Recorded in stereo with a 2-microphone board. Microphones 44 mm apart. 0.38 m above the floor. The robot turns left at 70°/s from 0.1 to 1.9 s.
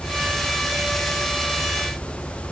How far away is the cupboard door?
I don't hear a cupboard door.